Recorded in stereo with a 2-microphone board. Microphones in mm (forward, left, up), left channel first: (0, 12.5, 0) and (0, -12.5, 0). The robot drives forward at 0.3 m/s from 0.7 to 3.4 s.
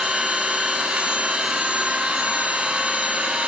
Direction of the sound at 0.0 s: 55° right (ahead or behind).